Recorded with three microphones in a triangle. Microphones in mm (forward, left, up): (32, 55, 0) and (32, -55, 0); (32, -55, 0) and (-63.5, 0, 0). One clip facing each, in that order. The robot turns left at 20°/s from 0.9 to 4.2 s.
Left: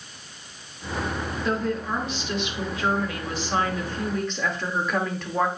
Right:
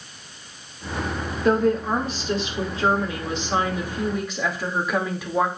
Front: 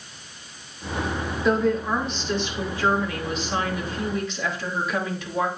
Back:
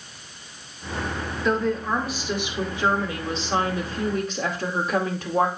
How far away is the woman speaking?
About 2.5 m.